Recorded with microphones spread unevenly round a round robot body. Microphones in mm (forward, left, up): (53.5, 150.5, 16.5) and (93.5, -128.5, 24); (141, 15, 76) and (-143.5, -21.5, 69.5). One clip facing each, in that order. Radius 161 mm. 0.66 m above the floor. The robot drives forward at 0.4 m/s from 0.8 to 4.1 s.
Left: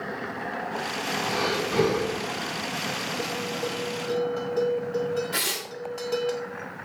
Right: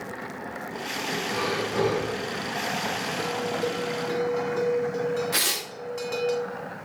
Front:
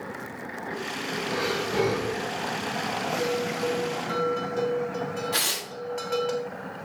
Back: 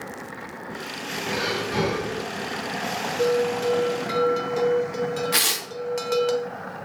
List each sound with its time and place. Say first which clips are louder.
1.3 s breathing: left 2 dB, back 1 dB; 140° left, 3.5 m; by 2.2 s 145° left, 4 m
3.2 s a bell: right 4 dB, back 7 dB; 160° right, 1.3 m; by 6.3 s 165° right, 1.6 m
5.3 s tearing paper: even, back 3 dB; 145° right, 1.5 m